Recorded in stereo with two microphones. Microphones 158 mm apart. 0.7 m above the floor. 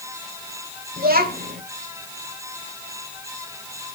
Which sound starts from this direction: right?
A child speaking, at 1.0 s.